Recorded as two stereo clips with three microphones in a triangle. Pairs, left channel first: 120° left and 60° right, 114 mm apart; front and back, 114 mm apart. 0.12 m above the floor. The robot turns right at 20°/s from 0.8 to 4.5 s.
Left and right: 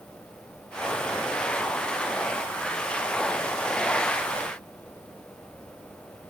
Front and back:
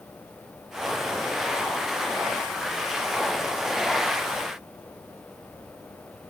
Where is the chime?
I don't hear a chime.